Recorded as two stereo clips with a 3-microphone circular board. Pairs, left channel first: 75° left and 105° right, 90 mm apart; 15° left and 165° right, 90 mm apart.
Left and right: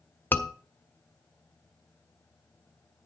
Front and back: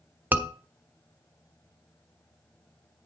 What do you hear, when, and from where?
0.3 s a scream: 135° left, 1.3 m